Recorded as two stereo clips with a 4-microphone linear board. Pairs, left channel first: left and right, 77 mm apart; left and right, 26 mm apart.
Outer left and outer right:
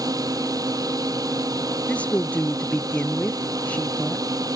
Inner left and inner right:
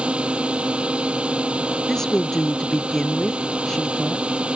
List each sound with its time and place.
0.0 s a drone: 55° right (ahead or behind)
1.9 s a woman speaking: 20° left (ahead or behind)